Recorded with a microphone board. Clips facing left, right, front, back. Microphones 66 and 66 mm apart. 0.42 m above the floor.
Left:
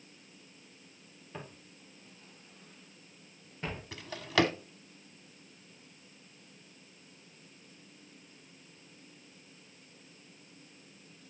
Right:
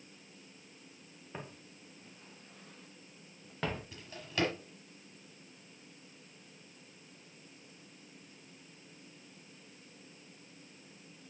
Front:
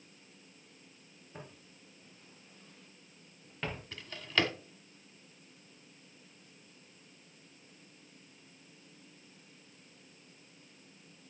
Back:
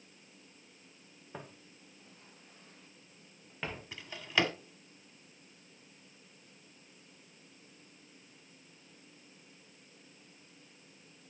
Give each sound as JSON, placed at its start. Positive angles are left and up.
{"t": 1.3, "sound": "footsteps", "azimuth_deg": -160, "distance_m": 3.5}
{"t": 3.9, "sound": "a drawer", "azimuth_deg": 100, "distance_m": 1.1}